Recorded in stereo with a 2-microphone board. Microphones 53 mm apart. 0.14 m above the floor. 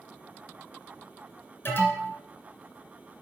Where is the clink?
No clink in this recording.